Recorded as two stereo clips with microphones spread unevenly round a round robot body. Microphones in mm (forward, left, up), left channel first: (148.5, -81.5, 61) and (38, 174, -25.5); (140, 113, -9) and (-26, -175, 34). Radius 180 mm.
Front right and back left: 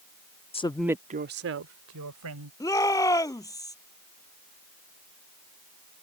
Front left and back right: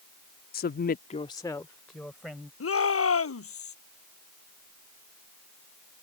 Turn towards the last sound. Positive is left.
turn(degrees=10)